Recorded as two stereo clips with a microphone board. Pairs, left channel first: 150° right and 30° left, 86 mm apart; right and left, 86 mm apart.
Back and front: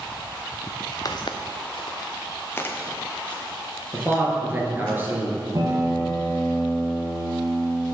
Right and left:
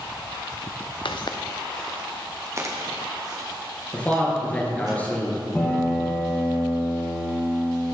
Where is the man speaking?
25° right, 2 m.